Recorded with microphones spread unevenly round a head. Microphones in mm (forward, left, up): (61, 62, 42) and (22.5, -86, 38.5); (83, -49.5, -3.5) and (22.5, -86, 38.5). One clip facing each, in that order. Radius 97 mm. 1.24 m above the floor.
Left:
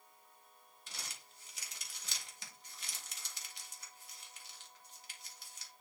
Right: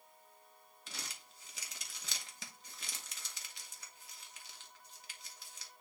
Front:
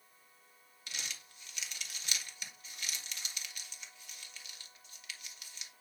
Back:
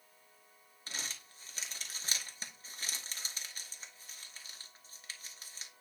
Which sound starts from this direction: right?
Crumpling, at 0.9 s.